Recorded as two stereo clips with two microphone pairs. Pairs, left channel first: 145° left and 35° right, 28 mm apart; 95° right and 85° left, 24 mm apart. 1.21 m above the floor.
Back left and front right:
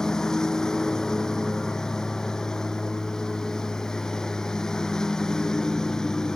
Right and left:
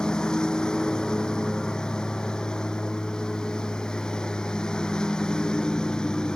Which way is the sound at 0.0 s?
145° right.